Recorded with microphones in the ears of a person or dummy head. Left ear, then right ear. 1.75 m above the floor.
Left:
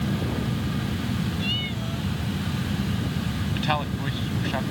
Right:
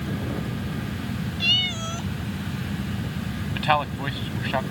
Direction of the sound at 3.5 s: 25° right (ahead or behind).